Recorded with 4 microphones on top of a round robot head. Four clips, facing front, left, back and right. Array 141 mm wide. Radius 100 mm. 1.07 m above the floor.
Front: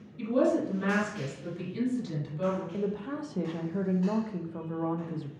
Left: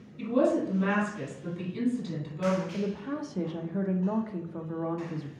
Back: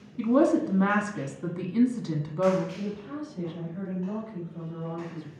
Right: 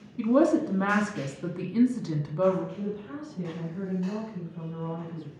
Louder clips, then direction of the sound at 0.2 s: Right 3 dB, back 4 dB; 130° right.